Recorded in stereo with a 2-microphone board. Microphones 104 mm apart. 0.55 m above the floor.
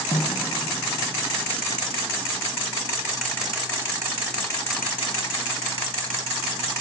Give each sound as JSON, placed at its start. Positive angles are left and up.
{"t": 0.1, "sound": "a snare drum", "side_deg": 80, "distance_m": 1.0}